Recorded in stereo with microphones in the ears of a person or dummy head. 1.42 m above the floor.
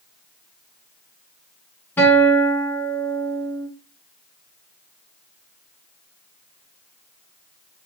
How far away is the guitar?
About 3 m.